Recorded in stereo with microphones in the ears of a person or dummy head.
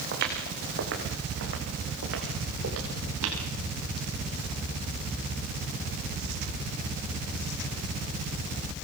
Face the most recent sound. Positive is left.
turn(degrees=-75)  # may be behind; listen again after turning